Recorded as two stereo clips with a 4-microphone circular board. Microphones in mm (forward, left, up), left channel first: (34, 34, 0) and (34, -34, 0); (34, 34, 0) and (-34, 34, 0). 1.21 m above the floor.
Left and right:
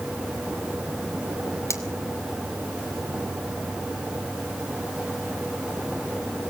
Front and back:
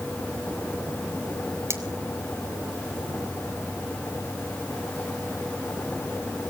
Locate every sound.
1.7 s cutlery clinking: 135° left, 2.5 m